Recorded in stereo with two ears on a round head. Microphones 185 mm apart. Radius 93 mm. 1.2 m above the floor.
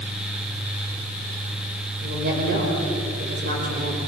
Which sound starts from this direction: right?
A woman speaking, at 2.0 s.